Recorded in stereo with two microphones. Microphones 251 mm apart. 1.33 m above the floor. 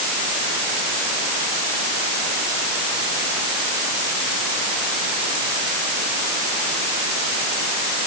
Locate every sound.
Only background noise.